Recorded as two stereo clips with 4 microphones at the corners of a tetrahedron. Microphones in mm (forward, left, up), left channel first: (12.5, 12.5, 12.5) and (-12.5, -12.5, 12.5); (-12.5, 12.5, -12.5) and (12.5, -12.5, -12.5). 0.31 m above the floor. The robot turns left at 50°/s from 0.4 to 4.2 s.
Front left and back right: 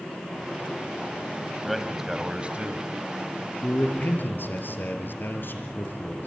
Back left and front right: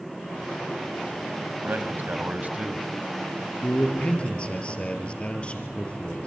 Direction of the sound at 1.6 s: 40° right.